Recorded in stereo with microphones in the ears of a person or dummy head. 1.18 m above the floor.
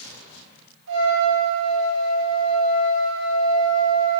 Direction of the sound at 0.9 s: 65° right (ahead or behind).